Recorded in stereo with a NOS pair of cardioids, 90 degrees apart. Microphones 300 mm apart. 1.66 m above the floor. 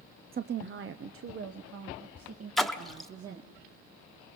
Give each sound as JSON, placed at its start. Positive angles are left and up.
{"t": 0.3, "sound": "a woman speaking", "azimuth_deg": -30, "distance_m": 0.6}
{"t": 2.6, "sound": "a splash", "azimuth_deg": 0, "distance_m": 1.4}